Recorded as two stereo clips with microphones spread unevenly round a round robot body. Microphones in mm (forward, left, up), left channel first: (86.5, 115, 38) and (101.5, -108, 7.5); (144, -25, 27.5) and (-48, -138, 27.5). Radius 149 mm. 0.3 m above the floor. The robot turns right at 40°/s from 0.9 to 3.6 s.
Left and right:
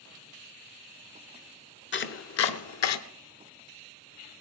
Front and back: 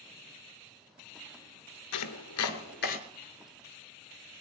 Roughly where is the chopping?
Ahead left.